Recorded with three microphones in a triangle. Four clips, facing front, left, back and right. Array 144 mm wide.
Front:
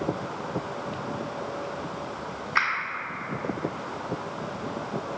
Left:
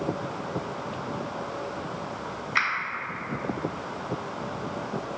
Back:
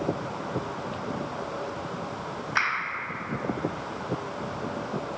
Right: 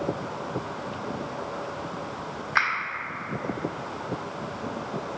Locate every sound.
2.5 s a finger snap: 100° right, 1.5 m